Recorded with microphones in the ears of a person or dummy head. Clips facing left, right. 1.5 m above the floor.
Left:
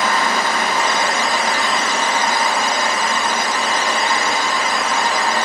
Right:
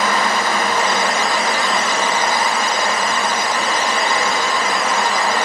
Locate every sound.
0.0 s a fan: 50° right (ahead or behind), 0.7 m